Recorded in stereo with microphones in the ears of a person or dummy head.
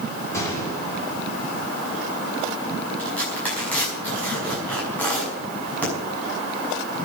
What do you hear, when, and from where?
0.3 s a gunshot: 15° left (ahead or behind), 3 m
3.0 s tearing paper: 10° left (ahead or behind), 6.5 m